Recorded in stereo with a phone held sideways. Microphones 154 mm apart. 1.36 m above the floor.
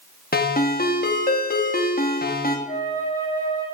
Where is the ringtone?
65° left (ahead or behind), 1.3 m.